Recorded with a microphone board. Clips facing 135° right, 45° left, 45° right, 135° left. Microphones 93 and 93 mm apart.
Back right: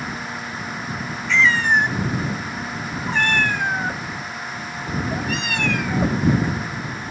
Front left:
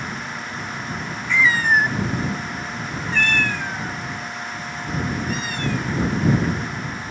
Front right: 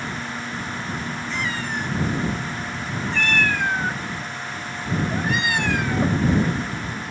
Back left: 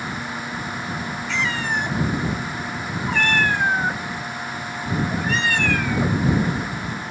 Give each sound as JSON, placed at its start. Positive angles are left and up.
{"t": 1.3, "sound": "a cat meowing", "azimuth_deg": 125}